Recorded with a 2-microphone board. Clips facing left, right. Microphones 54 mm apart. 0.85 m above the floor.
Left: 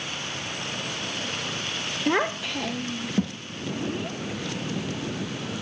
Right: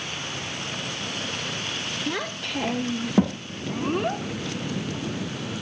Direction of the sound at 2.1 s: 40° left (ahead or behind).